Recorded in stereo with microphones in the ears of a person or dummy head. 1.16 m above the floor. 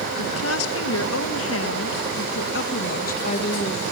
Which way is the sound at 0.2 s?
80° left.